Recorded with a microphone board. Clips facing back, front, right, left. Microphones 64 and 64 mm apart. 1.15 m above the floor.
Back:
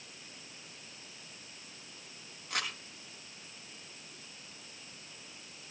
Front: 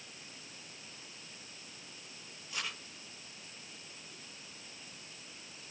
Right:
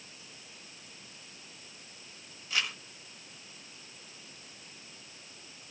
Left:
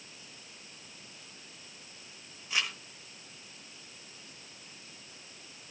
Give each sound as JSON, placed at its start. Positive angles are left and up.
{"t": 2.5, "sound": "crumpling", "azimuth_deg": 160, "distance_m": 6.0}